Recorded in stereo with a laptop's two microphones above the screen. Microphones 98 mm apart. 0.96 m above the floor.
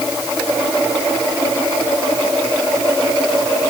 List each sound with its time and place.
Only background noise.